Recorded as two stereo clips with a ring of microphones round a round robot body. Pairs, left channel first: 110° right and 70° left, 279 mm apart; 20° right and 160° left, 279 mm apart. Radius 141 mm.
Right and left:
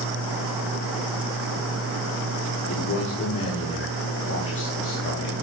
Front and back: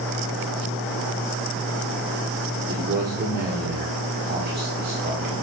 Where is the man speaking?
150° right, 1.4 m.